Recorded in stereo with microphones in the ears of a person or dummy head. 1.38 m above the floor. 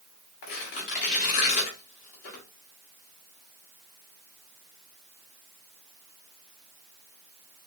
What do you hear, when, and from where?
0.4 s tearing paper: 50° left (ahead or behind), 1.5 m